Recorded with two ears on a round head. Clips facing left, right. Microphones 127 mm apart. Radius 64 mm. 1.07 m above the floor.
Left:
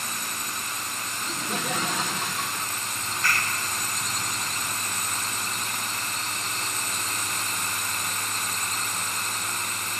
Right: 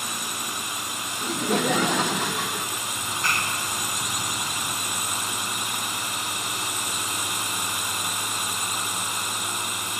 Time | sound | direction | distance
0.0 | a drone | 10° right (ahead or behind) | ?
1.2 | laughter | 55° right (ahead or behind) | ?
3.0 | a clap | 20° right (ahead or behind) | ?